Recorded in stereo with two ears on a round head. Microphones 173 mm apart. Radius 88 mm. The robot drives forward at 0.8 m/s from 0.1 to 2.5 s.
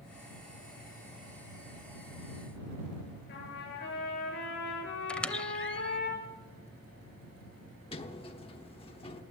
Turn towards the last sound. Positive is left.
turn(degrees=30)  # may be behind; listen again after turning